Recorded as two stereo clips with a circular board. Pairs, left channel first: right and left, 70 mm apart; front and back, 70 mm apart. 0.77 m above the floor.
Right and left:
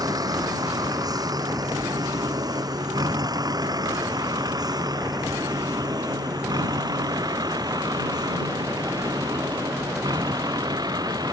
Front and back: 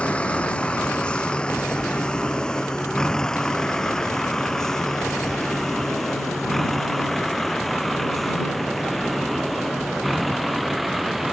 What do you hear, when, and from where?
0.0 s a vehicle: 75° left; by 11.3 s 90° left